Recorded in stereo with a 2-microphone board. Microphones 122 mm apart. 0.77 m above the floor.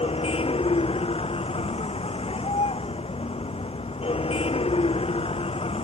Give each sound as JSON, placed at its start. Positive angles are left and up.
{"t": 0.0, "sound": "a vehicle", "side_deg": 55}